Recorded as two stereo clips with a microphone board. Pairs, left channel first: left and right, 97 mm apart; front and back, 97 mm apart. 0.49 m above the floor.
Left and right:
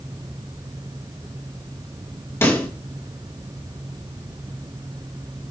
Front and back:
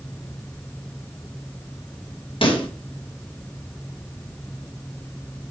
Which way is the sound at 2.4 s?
25° left.